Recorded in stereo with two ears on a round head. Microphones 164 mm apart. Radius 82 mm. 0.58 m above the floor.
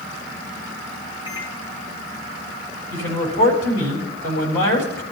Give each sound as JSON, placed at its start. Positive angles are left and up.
{"t": 1.3, "sound": "a microwave", "side_deg": 25, "distance_m": 3.0}
{"t": 2.9, "sound": "a man speaking", "side_deg": 75, "distance_m": 4.0}